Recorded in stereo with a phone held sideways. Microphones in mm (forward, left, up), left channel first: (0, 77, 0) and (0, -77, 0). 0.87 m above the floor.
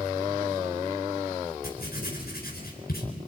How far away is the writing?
About 4 m.